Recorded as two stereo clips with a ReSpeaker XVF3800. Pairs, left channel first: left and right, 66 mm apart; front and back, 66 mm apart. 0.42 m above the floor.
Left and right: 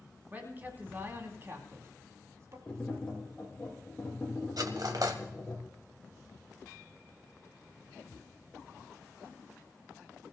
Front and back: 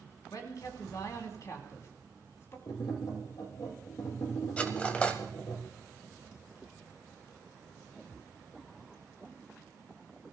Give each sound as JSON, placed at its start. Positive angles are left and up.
{"t": 0.3, "sound": "a man speaking", "azimuth_deg": -25, "distance_m": 3.0}
{"t": 2.7, "sound": "tapping", "azimuth_deg": 15, "distance_m": 4.5}
{"t": 4.6, "sound": "cutlery clinking", "azimuth_deg": -70, "distance_m": 1.5}